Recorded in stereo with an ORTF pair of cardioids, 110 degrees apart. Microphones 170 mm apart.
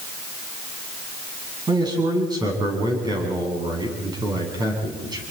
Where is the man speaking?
25° right, 8.5 m.